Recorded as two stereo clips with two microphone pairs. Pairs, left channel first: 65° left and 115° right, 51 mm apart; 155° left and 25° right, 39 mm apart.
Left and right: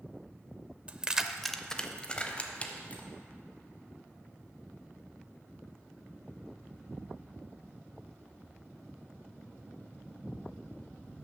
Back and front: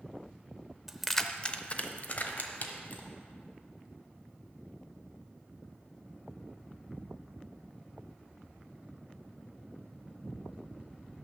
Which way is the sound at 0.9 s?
105° right.